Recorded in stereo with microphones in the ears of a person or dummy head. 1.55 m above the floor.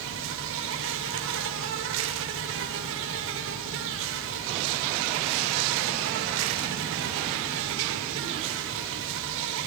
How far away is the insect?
About 1.7 m.